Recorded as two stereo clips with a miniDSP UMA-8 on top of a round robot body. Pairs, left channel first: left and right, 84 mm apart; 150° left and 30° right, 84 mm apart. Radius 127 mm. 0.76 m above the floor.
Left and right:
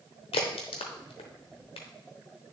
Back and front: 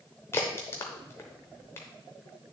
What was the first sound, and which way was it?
A crack, 90° left.